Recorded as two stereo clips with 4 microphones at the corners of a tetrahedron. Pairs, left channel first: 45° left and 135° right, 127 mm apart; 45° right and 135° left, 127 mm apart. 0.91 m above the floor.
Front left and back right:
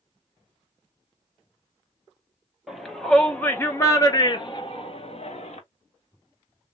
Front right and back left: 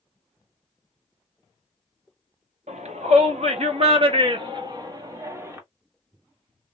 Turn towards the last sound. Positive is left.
turn(degrees=70)